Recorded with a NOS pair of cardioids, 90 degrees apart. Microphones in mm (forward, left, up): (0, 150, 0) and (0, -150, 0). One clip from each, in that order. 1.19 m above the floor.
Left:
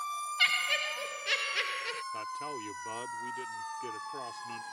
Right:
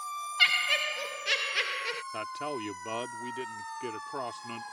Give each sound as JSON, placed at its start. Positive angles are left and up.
{"t": 0.4, "sound": "laughter", "azimuth_deg": -15}
{"t": 2.1, "sound": "a man speaking", "azimuth_deg": -45}